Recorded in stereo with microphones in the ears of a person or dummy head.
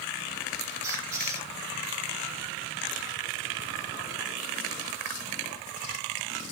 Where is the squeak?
15° right (ahead or behind), 6 m.